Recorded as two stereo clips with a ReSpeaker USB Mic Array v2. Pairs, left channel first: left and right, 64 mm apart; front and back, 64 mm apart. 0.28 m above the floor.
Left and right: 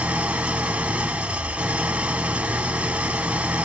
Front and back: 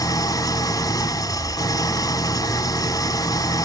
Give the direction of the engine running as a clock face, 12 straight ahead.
1 o'clock.